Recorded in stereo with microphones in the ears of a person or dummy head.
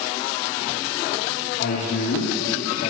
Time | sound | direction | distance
1.6 | a man speaking | 75° left (ahead or behind) | 3 m